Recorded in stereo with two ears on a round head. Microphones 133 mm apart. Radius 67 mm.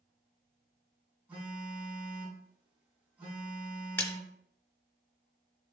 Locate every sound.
1.3 s a phone buzzing: 10° right (ahead or behind), 3.5 m
4.0 s a splash: 15° left (ahead or behind), 0.9 m